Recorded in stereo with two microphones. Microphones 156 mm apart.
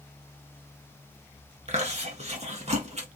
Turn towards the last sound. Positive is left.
turn(degrees=-45)  # may be behind; listen again after turning